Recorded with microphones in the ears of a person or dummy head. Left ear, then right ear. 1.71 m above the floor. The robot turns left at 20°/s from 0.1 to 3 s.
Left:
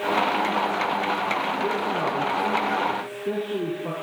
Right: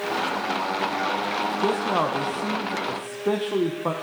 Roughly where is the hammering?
I don't hear hammering.